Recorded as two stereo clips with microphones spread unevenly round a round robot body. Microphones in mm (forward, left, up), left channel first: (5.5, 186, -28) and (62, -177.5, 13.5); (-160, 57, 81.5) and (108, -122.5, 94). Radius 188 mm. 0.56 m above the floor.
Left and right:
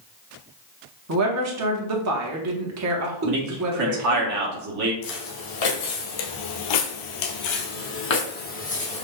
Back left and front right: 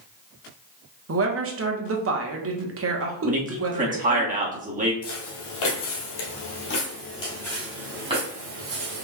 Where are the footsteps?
135° left, 1.4 m; by 9.0 s 20° left, 1.4 m.